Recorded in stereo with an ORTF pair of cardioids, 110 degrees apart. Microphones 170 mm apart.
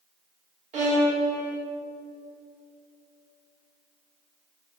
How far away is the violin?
About 3.5 m.